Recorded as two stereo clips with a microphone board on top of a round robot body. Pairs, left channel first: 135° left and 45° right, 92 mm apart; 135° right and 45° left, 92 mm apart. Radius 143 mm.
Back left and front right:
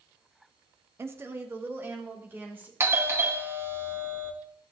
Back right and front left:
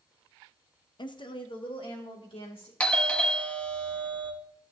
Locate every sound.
1.0 s a woman speaking: 105° right, 0.9 m; by 2.7 s 115° right, 3 m
2.8 s a doorbell: 70° right, 1.4 m